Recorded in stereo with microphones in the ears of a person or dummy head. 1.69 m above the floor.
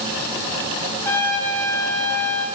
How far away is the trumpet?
About 1.7 m.